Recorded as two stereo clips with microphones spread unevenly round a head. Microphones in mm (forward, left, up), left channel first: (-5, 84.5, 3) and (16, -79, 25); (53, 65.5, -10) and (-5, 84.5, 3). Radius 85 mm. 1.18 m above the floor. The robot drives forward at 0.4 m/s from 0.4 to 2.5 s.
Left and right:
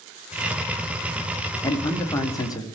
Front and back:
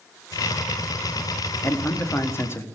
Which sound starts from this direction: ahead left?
A man speaking, at 1.6 s.